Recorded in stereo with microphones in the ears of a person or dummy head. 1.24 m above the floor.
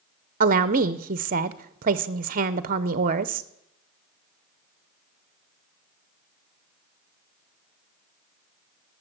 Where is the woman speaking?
40° right (ahead or behind), 0.5 m.